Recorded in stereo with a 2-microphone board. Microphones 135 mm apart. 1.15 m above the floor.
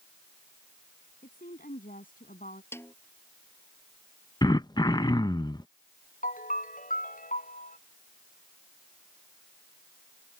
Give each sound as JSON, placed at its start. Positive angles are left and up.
{"t": 1.2, "sound": "a woman speaking", "side_deg": 80}
{"t": 2.7, "sound": "a snare drum", "side_deg": 15}
{"t": 4.4, "sound": "throat clearing", "side_deg": 30}
{"t": 6.2, "sound": "a ringtone", "side_deg": 70}